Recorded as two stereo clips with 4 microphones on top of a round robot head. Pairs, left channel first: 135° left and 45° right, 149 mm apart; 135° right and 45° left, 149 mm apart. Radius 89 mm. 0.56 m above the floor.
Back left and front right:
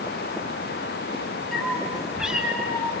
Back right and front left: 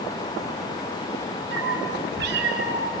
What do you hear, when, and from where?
1.5 s a cat meowing: 45° left, 3.5 m; by 2.9 s 30° left, 2.5 m